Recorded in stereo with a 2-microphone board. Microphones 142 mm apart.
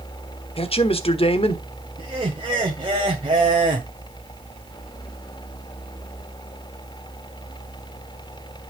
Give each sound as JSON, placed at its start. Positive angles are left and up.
{"t": 0.6, "sound": "a man speaking", "side_deg": 40, "distance_m": 1.3}
{"t": 2.0, "sound": "laughter", "side_deg": -35, "distance_m": 1.6}